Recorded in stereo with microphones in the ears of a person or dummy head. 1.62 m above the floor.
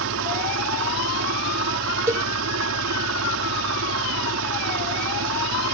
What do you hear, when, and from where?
0.0 s an engine running: 80° right
2.1 s a cowbell: 20° right (ahead or behind)